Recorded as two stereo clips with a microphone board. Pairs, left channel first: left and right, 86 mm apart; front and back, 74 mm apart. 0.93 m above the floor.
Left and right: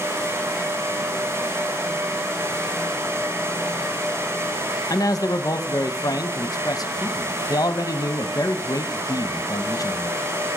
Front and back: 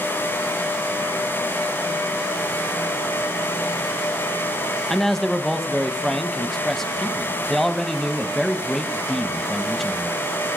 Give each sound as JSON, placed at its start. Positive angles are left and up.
{"t": 4.9, "sound": "a man speaking", "azimuth_deg": 85, "distance_m": 0.7}